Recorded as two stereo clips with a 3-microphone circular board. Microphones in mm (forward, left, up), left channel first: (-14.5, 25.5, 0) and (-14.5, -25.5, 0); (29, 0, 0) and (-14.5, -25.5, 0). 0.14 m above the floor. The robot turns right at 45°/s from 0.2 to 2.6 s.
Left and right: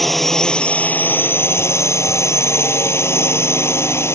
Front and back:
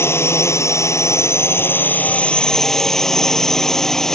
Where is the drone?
5° left; by 4.1 s 110° left.